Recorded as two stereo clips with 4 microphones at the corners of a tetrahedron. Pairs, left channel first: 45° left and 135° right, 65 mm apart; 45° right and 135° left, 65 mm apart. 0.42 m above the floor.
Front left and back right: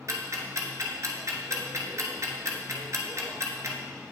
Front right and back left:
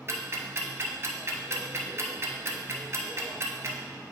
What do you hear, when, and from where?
0.1 s ticking: 175° right, 0.9 m